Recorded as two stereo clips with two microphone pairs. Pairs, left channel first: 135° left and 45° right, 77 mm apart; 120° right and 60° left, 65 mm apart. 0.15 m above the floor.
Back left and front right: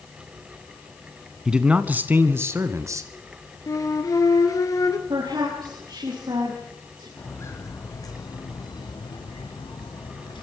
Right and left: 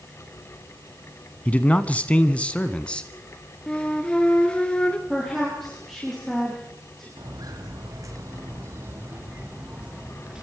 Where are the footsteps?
75° left, 4 m; by 10.4 s 140° left, 5 m.